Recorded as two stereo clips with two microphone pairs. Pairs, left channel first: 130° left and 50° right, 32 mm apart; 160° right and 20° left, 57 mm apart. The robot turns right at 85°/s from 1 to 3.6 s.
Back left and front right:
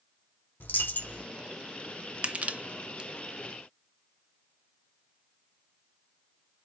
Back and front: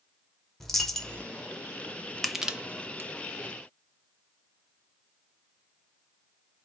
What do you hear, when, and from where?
0.6 s a dropped coin: 115° left, 1.0 m; by 1.2 s 135° left, 1.0 m
2.2 s crushing: 75° right, 0.5 m; by 3.1 s straight ahead, 0.5 m